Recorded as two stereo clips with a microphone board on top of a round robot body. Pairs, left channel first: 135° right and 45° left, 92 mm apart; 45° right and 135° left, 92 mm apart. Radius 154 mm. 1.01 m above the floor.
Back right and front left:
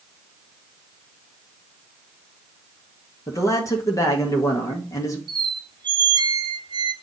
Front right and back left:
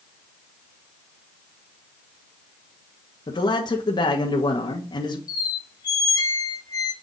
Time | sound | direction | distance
3.3 | a man speaking | 85° right | 1.6 m
5.3 | a squeak | 5° left | 0.9 m